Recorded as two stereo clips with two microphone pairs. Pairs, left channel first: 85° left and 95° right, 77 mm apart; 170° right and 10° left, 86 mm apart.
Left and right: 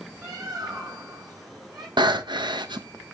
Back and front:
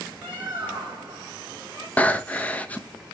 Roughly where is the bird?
Ahead right.